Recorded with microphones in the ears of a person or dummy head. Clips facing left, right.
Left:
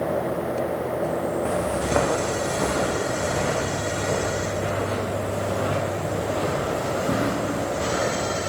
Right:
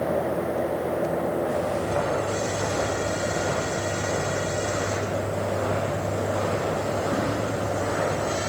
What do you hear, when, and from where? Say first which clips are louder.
1.4 s footsteps: left 1 dB; 70° left (ahead or behind), 5 m; by 8.5 s 35° left (ahead or behind), 9 m